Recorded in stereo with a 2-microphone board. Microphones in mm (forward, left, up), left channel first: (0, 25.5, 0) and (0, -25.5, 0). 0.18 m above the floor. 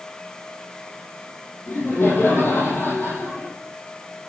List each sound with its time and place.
1.7 s laughter: 45° left (ahead or behind), 5.5 m